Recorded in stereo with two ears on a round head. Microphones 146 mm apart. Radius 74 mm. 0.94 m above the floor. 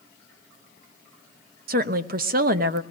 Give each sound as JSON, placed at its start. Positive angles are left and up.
{"t": 1.7, "sound": "a woman speaking", "side_deg": -60, "distance_m": 0.8}